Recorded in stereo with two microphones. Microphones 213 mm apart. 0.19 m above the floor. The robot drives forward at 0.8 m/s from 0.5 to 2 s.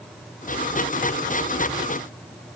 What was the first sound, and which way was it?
Only background noise.